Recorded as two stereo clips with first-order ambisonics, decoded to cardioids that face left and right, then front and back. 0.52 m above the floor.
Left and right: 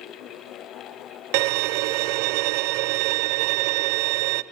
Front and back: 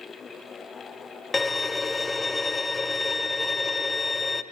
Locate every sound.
1.3 s a violin: 80° right, 0.5 m